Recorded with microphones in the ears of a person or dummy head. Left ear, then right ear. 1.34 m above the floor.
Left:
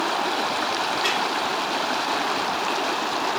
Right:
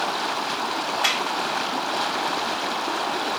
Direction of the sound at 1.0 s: 40° right (ahead or behind).